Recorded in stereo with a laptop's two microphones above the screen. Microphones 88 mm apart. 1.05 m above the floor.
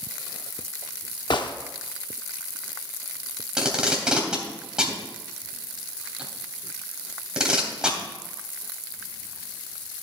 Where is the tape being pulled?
10° right (ahead or behind), 3 m.